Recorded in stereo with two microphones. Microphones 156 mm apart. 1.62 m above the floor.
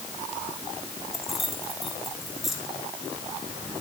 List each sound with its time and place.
1.1 s keys jangling: centre (ahead or behind), 4 m